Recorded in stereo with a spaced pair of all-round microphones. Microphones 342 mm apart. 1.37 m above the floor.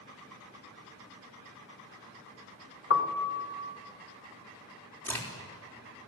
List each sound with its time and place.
2.9 s a piano: 45° left (ahead or behind), 1.5 m
5.0 s a crack: 5° left (ahead or behind), 4 m